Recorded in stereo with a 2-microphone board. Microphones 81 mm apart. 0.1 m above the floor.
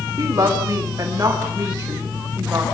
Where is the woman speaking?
45° right (ahead or behind), 9.5 m; by 2.6 s 30° right (ahead or behind), 11.5 m.